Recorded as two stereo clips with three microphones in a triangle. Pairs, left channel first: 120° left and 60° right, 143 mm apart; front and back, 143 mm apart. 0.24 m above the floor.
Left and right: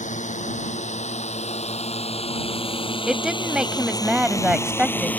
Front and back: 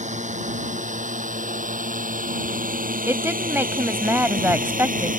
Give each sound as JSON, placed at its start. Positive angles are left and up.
{"t": 0.0, "sound": "a drone", "azimuth_deg": 150}
{"t": 3.1, "sound": "a woman speaking", "azimuth_deg": -135}